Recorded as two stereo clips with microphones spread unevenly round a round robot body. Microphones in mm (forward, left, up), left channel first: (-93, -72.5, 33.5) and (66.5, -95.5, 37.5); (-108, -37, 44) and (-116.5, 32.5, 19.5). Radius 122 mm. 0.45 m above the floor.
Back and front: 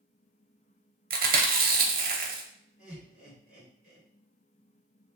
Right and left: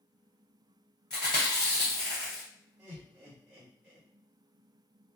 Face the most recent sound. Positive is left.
turn(degrees=70)